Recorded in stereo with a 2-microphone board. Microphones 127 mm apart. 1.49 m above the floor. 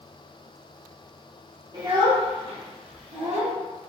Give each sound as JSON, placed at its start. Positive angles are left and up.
{"t": 1.7, "sound": "a child speaking", "side_deg": -35, "distance_m": 1.6}